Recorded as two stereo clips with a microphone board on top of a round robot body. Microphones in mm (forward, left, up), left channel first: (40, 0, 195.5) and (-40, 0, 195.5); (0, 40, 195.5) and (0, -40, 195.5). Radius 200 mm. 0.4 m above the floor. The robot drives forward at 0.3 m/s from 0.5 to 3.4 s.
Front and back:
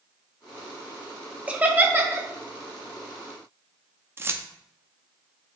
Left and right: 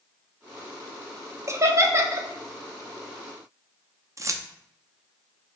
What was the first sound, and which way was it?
Laughter, 115° right.